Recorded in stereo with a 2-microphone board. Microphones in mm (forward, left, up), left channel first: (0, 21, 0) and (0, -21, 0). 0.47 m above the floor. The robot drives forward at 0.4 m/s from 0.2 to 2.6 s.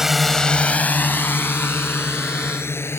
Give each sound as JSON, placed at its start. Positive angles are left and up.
{"t": 0.0, "sound": "a drone", "side_deg": -10}